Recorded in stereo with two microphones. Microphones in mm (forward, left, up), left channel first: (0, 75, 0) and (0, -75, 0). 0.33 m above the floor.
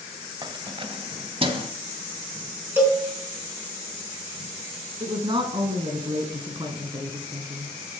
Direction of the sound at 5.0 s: 35° right (ahead or behind).